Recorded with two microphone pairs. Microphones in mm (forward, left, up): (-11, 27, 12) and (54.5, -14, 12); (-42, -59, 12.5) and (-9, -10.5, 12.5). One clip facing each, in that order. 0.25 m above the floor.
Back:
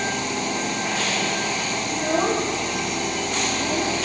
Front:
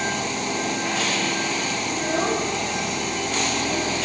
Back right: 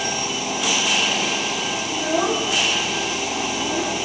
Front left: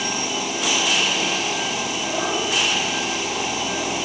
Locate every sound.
1.9 s a child speaking: 175° left, 6 m